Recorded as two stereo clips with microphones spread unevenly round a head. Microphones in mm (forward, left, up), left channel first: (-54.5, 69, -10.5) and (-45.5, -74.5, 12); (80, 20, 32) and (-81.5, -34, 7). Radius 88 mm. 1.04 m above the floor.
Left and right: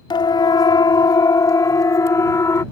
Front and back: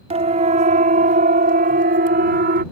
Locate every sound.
0.1 s a siren: 150° left; by 2.6 s 165° left